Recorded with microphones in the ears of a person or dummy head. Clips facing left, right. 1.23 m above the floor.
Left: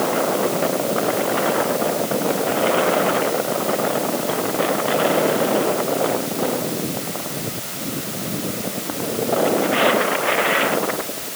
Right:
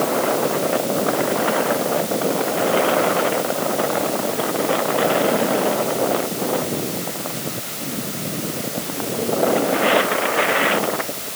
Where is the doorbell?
I don't hear a doorbell.